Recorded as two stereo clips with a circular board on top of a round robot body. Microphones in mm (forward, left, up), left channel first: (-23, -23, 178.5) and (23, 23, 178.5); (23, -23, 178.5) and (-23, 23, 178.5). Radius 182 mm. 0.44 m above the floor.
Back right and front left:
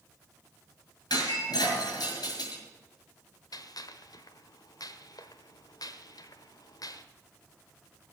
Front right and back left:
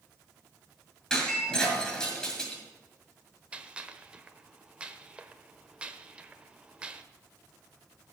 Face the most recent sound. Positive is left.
turn(degrees=-155)